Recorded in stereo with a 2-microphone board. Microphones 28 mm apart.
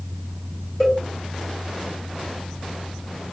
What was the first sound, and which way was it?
A cowbell, 20° left (ahead or behind).